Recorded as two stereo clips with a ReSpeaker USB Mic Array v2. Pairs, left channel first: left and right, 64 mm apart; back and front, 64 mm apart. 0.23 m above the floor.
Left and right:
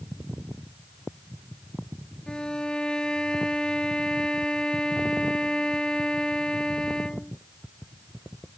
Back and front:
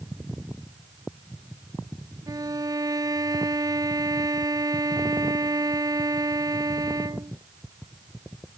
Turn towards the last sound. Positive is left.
turn(degrees=15)